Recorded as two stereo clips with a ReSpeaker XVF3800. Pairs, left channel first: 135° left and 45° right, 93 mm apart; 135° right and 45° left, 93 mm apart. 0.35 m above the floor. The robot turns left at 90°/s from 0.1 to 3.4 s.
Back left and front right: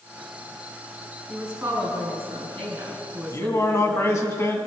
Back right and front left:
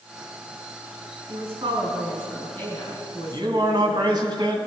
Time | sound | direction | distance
1.3 | a woman speaking | 50° left | 4 m
3.3 | a man speaking | 90° left | 2 m